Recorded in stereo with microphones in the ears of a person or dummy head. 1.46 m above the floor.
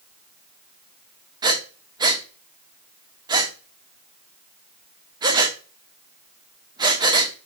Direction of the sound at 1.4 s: 15° right (ahead or behind).